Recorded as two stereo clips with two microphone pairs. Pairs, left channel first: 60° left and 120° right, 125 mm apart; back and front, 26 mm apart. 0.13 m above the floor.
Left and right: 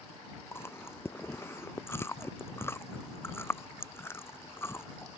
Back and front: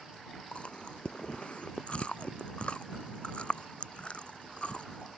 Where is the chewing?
130° left.